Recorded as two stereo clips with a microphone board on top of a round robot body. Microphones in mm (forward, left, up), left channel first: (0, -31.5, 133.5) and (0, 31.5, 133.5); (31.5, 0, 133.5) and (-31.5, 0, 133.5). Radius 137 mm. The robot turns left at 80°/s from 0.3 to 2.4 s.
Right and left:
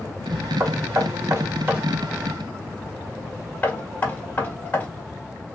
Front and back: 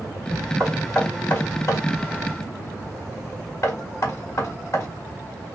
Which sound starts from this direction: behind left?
Knocking, at 0.6 s.